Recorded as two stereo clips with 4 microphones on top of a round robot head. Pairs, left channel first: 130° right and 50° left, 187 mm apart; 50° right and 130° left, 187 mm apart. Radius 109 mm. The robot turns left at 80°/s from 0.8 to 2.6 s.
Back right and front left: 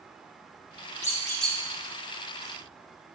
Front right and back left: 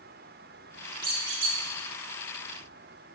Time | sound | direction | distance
1.0 | a squeak | 175° left | 1.1 m